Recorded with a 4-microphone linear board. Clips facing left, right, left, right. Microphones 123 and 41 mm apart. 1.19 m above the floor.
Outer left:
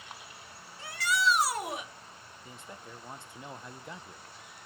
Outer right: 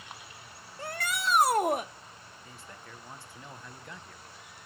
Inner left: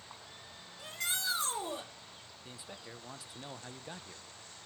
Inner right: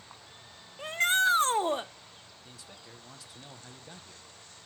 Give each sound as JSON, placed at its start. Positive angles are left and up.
{"t": 0.8, "sound": "a shout", "side_deg": -50, "distance_m": 1.3}
{"t": 2.5, "sound": "a man speaking", "side_deg": 20, "distance_m": 1.0}